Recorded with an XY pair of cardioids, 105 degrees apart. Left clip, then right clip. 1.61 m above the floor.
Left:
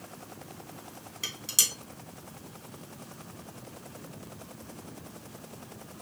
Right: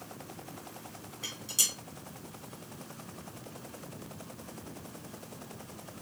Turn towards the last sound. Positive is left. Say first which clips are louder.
# left 3 dB
turn(degrees=60)